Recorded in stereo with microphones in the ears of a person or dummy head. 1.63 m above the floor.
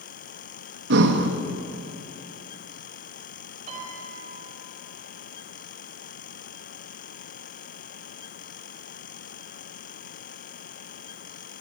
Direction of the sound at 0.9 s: 65° right (ahead or behind).